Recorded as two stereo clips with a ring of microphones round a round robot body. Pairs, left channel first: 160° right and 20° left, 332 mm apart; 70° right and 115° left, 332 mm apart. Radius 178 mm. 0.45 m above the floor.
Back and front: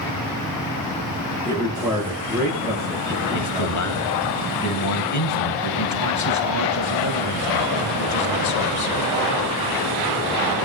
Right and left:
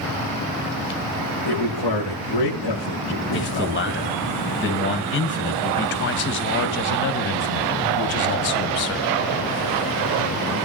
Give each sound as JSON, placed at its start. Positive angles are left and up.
{"t": 1.4, "sound": "a man speaking", "azimuth_deg": -60, "distance_m": 7.5}
{"t": 3.3, "sound": "a man speaking", "azimuth_deg": -125, "distance_m": 3.0}